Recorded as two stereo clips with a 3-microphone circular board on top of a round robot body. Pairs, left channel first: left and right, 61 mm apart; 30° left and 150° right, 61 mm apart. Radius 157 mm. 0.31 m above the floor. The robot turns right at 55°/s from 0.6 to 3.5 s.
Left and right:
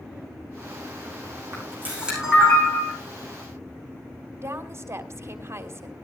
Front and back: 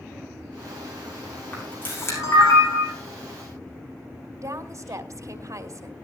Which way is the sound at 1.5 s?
45° right.